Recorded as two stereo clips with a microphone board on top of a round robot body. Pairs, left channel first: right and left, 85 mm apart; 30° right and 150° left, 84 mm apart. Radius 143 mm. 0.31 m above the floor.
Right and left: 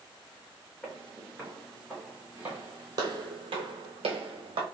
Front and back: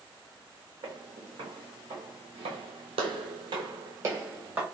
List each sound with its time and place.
0.8 s footsteps: 165° right, 1.5 m; by 4.6 s 75° left, 1.1 m